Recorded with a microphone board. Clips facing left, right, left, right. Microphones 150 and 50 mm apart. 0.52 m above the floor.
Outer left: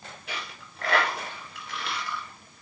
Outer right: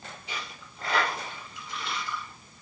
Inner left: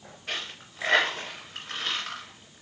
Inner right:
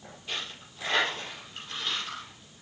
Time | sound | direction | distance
0.3 | a dropped coin | 75° left (ahead or behind) | 1.9 m